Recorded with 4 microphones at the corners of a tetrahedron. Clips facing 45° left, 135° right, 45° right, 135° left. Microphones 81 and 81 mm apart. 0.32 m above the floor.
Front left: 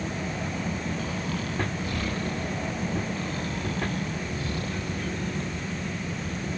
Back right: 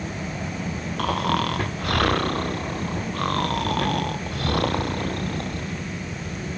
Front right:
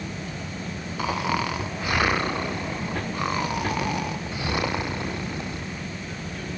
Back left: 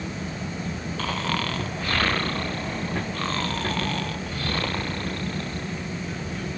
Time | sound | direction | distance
1.0 | snoring | 120° right | ?